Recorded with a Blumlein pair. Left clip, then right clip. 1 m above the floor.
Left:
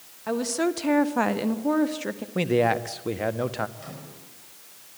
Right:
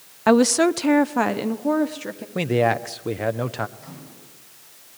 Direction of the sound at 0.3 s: 35° right.